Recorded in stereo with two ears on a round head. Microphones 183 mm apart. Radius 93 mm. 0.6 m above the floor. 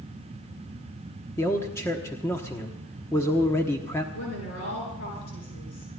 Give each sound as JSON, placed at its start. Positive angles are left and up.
{"t": 1.4, "sound": "a man speaking", "side_deg": 15, "distance_m": 1.1}
{"t": 4.1, "sound": "a woman speaking", "side_deg": 75, "distance_m": 9.0}